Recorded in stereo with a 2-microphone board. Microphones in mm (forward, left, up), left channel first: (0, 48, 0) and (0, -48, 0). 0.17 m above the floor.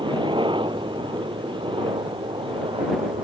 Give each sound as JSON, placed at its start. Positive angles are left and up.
{"t": 0.0, "sound": "a helicopter", "side_deg": -60}